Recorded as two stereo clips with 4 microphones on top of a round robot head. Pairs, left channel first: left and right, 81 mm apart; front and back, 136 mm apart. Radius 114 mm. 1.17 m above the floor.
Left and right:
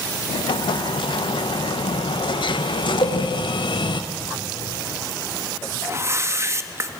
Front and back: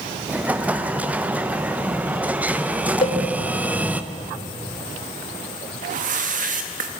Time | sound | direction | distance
0.3 | an explosion | 100° left | 1.0 m
3.0 | a cowbell | 35° left | 0.8 m
5.8 | a whoosh | 145° right | 1.0 m